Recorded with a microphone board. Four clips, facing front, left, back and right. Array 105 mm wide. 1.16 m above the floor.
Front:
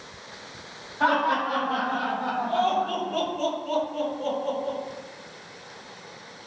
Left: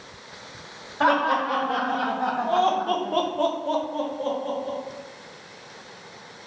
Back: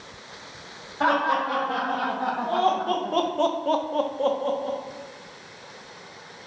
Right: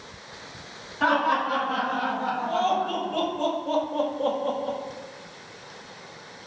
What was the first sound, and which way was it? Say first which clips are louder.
Laughter: left 2 dB, even; 105° left.